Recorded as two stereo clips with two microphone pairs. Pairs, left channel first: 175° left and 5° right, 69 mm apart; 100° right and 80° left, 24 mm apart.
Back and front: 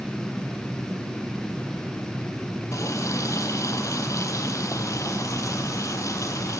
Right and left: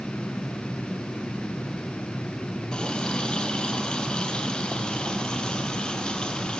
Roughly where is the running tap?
Behind right.